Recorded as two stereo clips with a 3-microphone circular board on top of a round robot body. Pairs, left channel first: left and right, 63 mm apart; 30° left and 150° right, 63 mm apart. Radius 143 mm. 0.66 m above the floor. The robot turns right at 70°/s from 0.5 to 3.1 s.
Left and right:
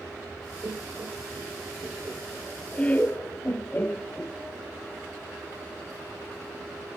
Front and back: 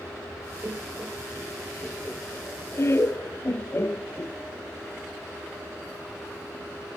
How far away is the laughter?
About 0.6 m.